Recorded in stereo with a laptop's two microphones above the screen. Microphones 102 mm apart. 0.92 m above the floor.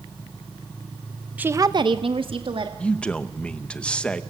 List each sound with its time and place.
1.4 s a woman speaking: 15° right (ahead or behind), 0.7 m; by 2.7 s 60° right (ahead or behind), 1.9 m
2.8 s a man speaking: 10° left (ahead or behind), 0.8 m